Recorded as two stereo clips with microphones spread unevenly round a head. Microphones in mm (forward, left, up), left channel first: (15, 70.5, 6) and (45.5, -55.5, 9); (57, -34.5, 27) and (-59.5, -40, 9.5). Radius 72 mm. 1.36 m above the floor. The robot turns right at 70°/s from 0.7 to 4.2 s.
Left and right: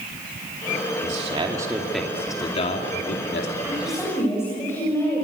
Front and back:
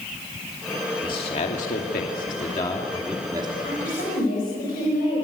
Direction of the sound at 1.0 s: 50° right.